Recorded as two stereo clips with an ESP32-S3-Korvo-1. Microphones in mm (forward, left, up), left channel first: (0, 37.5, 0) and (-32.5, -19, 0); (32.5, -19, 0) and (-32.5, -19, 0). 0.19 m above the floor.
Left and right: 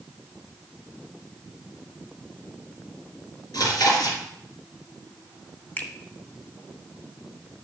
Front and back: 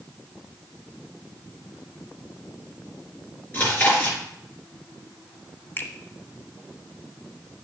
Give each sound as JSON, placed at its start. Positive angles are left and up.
{"t": 3.5, "sound": "chewing", "azimuth_deg": 60, "distance_m": 3.5}
{"t": 5.8, "sound": "a finger snap", "azimuth_deg": 15, "distance_m": 1.1}